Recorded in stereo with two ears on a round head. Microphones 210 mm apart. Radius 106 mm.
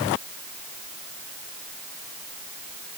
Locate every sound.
Only background noise.